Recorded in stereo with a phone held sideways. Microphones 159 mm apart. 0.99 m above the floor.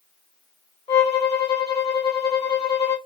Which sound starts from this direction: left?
A violin, at 0.9 s.